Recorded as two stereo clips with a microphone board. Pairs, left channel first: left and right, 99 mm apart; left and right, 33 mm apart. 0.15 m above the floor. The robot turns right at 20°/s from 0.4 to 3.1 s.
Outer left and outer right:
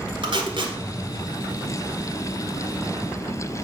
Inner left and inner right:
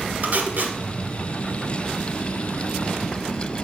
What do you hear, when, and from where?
0.2 s tape being pulled: 55° right (ahead or behind), 2.0 m; by 0.8 s 50° right (ahead or behind), 2.0 m